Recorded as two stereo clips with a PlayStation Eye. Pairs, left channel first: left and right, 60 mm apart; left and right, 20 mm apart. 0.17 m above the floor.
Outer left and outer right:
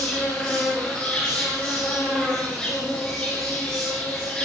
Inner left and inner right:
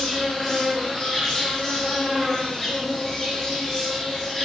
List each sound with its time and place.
0.0 s an insect: 15° left (ahead or behind), 9 m